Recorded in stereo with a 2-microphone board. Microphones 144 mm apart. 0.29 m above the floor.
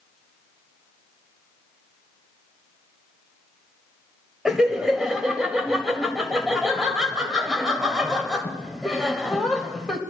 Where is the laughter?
5° right (ahead or behind), 1.5 m.